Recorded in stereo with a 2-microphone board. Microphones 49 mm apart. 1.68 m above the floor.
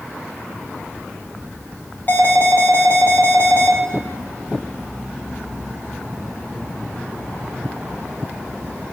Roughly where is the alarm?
Left.